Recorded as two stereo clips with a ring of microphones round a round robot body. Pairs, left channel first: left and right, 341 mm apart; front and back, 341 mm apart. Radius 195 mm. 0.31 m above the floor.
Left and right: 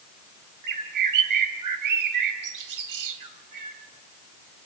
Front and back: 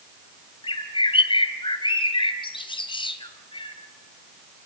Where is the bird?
75° right, 2.5 m.